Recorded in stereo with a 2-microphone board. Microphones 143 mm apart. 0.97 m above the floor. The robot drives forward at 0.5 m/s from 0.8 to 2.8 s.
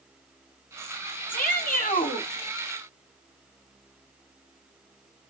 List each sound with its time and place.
1.3 s a shout: 75° left (ahead or behind), 2.5 m; by 2.3 s 65° left (ahead or behind), 2.5 m